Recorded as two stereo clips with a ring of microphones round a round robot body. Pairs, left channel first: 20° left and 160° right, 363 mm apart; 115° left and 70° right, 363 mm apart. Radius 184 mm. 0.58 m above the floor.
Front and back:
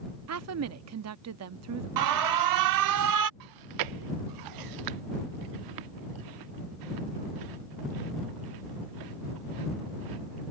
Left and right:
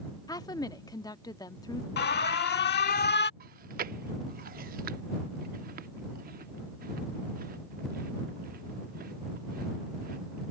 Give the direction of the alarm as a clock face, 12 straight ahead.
6 o'clock.